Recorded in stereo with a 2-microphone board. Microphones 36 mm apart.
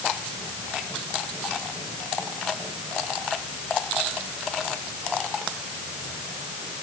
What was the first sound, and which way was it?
Only background noise.